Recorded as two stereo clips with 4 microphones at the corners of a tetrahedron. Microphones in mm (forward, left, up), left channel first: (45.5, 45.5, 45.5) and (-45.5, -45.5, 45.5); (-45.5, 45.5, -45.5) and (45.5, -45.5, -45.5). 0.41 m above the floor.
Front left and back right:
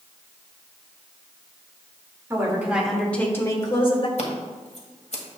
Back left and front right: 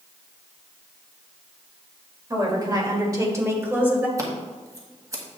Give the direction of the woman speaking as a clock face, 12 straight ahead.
3 o'clock.